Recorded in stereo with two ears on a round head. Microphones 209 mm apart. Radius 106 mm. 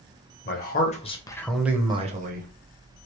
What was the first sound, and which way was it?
A man speaking, 45° left (ahead or behind).